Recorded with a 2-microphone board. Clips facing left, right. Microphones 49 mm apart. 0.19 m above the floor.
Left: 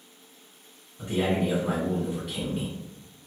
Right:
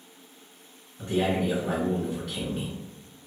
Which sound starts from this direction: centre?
A man speaking, at 1.0 s.